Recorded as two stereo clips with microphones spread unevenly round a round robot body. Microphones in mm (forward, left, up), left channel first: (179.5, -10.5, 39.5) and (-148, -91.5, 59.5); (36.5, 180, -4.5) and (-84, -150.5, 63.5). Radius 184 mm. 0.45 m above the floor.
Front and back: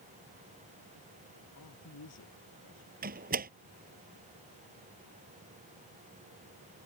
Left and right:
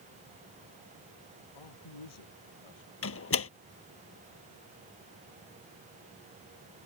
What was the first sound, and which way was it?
A man speaking, 65° left.